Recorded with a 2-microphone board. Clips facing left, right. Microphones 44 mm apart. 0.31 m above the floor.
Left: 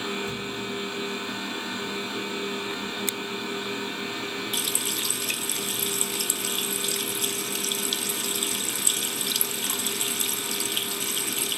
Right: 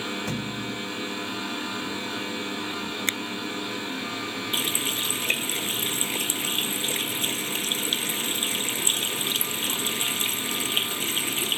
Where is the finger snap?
40° right (ahead or behind).